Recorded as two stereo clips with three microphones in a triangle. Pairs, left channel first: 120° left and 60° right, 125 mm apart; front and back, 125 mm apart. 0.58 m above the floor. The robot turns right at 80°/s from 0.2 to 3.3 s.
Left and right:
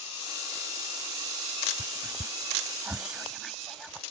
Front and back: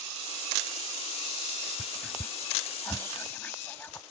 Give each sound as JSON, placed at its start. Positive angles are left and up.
{"t": 1.8, "sound": "whispering", "azimuth_deg": -85}